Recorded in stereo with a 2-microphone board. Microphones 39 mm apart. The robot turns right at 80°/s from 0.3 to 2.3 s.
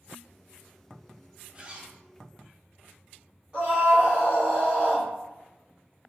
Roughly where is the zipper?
Behind right.